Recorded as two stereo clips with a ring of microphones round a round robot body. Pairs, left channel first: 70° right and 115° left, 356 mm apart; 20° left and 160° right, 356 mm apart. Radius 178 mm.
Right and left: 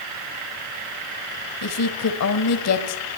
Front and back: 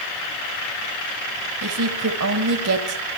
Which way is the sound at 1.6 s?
110° right.